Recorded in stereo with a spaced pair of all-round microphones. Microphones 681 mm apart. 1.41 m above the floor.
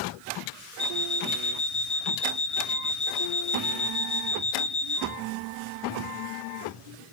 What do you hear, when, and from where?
0.8 s an alarm clock: 35° left (ahead or behind), 1.2 m